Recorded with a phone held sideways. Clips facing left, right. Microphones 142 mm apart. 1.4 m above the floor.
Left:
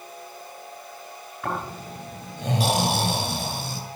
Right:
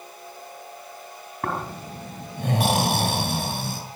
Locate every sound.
1.4 s snoring: 55° right (ahead or behind), 6.5 m